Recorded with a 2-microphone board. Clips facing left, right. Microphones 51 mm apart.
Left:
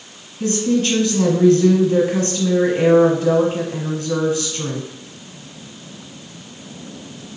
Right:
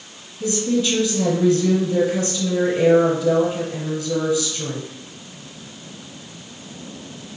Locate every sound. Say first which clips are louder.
0.4 s a woman speaking: left 2 dB; 45° left (ahead or behind), 1.4 m